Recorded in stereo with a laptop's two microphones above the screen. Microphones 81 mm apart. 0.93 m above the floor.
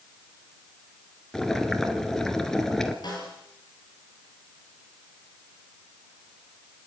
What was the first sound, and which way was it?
Boiling, 5° left (ahead or behind).